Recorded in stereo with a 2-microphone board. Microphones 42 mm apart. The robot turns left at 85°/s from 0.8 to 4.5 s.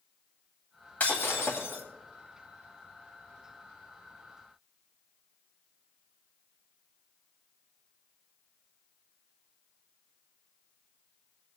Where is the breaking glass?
135° left, 2 m; by 1.8 s 65° left, 2 m.